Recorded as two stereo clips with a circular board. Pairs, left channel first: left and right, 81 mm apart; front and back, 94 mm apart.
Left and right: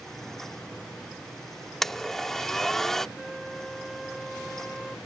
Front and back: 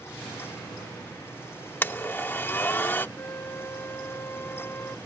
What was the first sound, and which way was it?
A blender, 10° left.